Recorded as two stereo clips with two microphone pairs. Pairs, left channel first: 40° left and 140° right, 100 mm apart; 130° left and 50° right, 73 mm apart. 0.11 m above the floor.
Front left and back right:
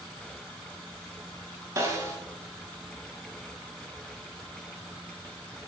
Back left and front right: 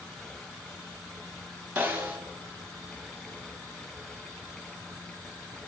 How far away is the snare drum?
About 1.2 m.